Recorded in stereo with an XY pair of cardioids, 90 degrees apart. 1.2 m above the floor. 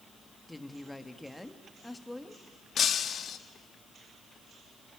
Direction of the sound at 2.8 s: 65° left.